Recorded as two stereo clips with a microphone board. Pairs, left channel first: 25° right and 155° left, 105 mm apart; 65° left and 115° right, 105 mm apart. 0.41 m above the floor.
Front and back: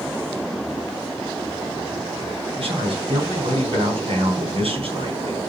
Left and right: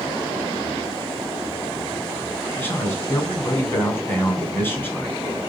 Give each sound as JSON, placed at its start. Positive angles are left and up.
{"t": 2.6, "sound": "a man speaking", "azimuth_deg": 135, "distance_m": 4.0}